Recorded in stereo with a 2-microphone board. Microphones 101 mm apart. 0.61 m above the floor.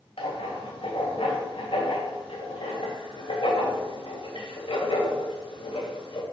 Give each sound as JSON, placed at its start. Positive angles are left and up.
{"t": 0.2, "sound": "writing", "side_deg": 70, "distance_m": 2.0}